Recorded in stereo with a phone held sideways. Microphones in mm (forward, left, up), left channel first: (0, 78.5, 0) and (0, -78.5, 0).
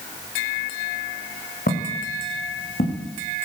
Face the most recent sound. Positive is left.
turn(degrees=75)  # may be behind; listen again after turning